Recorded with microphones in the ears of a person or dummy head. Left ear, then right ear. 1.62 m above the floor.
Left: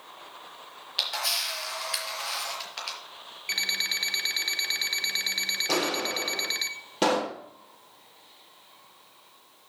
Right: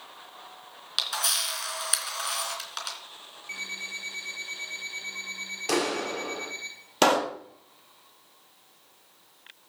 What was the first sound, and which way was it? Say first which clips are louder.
A camera shutter: even; 55° right (ahead or behind).